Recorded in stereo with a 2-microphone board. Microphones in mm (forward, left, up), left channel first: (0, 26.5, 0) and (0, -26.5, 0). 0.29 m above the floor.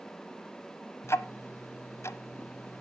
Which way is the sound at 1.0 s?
60° left (ahead or behind).